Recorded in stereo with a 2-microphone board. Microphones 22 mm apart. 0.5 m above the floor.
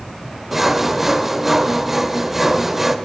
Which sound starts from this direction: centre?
Sawing, at 0.5 s.